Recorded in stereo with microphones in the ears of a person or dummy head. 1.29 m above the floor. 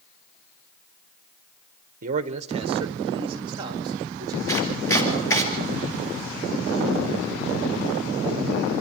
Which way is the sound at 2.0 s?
55° right (ahead or behind).